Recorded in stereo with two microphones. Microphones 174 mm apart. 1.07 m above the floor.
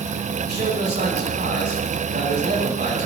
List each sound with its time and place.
0.4 s a man speaking: 80° right, 4 m